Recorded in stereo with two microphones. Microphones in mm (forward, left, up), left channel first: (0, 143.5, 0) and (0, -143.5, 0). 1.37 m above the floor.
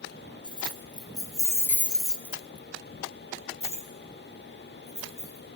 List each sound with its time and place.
0.4 s keys jangling: 15° left (ahead or behind), 1.4 m; by 5.6 s 20° right (ahead or behind), 2.5 m